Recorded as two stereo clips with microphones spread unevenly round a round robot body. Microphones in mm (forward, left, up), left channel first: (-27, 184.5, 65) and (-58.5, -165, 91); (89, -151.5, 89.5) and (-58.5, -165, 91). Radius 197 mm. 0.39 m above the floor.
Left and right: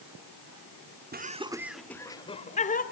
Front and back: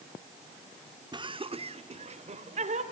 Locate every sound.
1.1 s laughter: 145° right, 1.2 m; by 2.8 s 145° left, 2 m